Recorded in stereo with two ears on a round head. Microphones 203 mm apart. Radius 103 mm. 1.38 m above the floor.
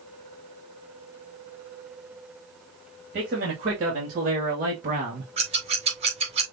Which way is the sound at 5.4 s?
25° right (ahead or behind).